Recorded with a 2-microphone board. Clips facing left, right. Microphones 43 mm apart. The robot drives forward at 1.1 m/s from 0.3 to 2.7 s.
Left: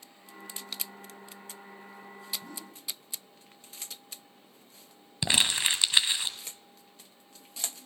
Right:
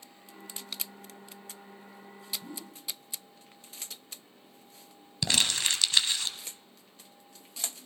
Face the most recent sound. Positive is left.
turn(degrees=20)  # may be behind; listen again after turning